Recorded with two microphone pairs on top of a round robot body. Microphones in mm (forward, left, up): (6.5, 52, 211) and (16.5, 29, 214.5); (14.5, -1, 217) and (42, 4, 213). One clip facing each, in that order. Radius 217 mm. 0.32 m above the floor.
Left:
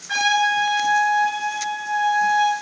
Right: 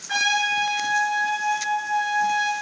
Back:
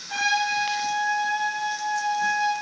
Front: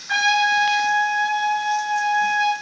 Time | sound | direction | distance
0.1 | a trumpet | 30° left | 4 m